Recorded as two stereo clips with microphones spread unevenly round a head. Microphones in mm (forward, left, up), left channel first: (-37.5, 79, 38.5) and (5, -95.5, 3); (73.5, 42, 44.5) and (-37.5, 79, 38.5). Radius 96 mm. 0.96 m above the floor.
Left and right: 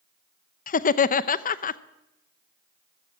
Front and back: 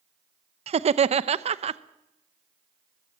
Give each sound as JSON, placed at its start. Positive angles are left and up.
{"t": 0.7, "sound": "laughter", "azimuth_deg": 150, "distance_m": 0.6}